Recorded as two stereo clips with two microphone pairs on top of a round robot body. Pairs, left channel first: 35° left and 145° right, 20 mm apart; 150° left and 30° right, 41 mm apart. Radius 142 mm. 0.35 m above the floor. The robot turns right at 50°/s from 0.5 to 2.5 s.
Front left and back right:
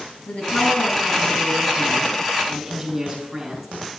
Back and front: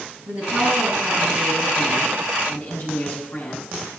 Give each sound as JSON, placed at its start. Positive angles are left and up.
{"t": 0.3, "sound": "a woman speaking", "azimuth_deg": 25, "distance_m": 6.0}